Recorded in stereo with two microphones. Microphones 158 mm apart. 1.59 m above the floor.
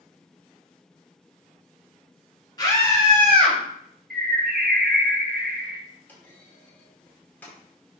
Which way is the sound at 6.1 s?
10° left (ahead or behind).